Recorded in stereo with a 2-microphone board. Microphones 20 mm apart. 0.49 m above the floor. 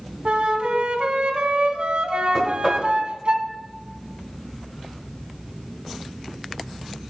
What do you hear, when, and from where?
0.2 s a flute: 55° right (ahead or behind), 1.1 m
2.3 s knocking: 20° left (ahead or behind), 1.5 m